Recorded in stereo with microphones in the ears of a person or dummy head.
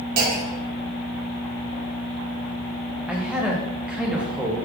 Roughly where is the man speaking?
Centre.